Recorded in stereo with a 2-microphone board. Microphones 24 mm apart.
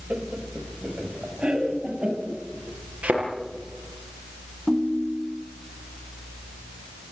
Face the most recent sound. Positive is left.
turn(degrees=-15)  # may be behind; listen again after turning